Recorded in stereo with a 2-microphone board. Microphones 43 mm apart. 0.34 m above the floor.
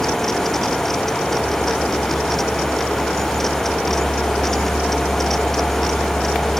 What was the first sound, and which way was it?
Only background noise.